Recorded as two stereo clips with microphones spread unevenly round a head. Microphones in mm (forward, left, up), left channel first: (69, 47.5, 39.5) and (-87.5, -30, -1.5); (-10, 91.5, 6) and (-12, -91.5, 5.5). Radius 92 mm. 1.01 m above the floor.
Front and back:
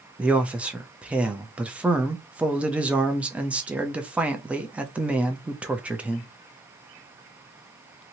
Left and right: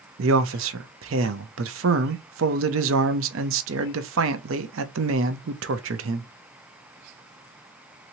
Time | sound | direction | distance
0.2 | a man speaking | 75° right | 0.6 m